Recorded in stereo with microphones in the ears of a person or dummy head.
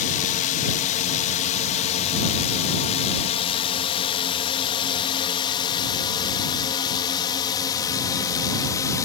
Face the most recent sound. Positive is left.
turn(degrees=20)  # may be behind; listen again after turning